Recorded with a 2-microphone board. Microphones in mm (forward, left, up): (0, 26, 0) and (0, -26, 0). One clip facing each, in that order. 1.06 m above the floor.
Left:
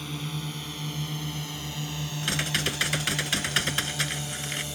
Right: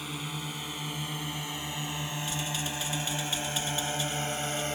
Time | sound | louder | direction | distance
0.0 | a drone | left 2 dB | 10° right (ahead or behind) | ?
2.2 | typing on a keyboard | left 10 dB | 80° left | ?